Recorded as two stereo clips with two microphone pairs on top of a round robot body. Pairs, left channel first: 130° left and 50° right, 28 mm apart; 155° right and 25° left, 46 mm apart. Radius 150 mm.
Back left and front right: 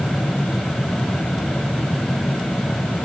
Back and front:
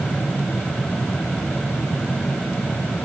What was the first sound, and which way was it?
Only background noise.